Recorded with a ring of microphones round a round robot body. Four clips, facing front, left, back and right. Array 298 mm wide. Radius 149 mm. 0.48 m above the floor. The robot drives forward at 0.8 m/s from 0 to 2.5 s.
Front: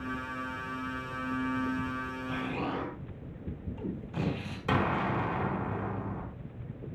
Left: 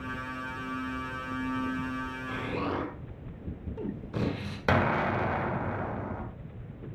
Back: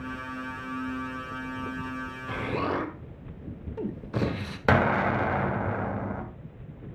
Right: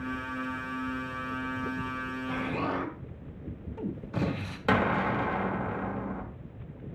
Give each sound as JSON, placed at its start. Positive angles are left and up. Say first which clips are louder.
{"t": 2.3, "sound": "an explosion", "louder": "right 1 dB, back 6 dB", "azimuth_deg": 180, "distance_m": 1.8}
{"t": 4.7, "sound": "an explosion", "louder": "even, back 6 dB", "azimuth_deg": 170, "distance_m": 2.5}